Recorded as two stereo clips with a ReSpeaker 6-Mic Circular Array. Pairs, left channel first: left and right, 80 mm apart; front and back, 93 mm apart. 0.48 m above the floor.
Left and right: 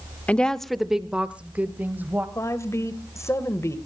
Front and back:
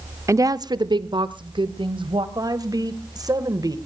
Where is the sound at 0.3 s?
155° left, 0.9 m; by 2.2 s 155° right, 2.5 m.